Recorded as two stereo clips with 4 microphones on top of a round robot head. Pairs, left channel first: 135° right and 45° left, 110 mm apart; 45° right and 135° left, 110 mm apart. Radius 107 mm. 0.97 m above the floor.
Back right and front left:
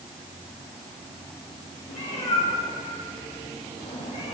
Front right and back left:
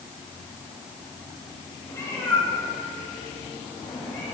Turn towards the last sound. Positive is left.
turn(degrees=-115)